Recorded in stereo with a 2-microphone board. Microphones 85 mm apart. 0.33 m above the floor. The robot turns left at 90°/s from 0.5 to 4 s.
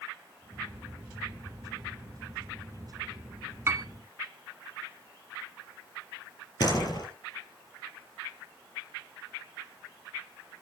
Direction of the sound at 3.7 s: 30° right (ahead or behind).